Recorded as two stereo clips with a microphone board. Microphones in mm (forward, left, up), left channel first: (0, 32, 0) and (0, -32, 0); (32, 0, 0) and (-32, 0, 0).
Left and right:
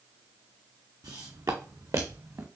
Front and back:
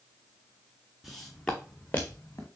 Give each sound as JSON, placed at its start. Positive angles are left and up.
{"t": 1.0, "sound": "footsteps", "azimuth_deg": -90, "distance_m": 1.1}